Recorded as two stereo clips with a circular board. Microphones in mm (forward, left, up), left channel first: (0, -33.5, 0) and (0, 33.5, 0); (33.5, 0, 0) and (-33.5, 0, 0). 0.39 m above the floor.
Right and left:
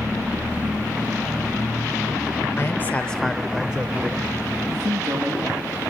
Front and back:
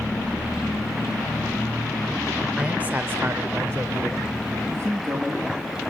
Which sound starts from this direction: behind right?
A man speaking, at 2.6 s.